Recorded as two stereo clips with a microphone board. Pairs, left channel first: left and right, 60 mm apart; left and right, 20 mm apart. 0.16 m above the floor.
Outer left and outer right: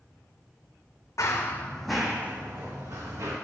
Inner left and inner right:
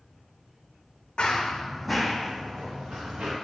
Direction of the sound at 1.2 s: 55° left (ahead or behind).